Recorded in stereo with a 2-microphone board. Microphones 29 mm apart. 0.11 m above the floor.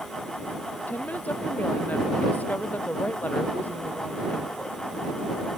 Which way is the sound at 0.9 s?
70° left (ahead or behind).